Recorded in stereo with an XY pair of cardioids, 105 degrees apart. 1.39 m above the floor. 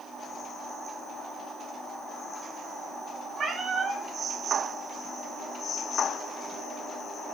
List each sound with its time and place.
3.4 s a cat meowing: 50° right, 4 m